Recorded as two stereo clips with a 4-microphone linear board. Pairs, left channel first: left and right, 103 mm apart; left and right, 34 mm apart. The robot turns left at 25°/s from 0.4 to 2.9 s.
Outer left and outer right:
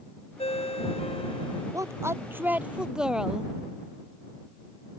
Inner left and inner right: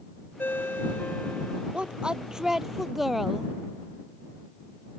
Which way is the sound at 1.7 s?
35° right (ahead or behind).